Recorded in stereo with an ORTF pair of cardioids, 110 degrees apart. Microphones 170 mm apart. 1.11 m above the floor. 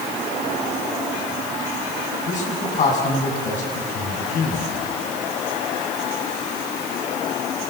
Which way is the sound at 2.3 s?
45° left.